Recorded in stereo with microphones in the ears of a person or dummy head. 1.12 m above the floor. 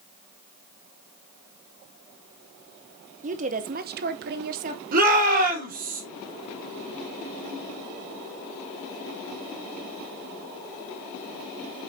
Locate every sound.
3.2 s a woman speaking: 35° right (ahead or behind), 0.8 m; by 4.8 s 40° right (ahead or behind), 0.8 m
4.9 s a shout: 50° right (ahead or behind), 4 m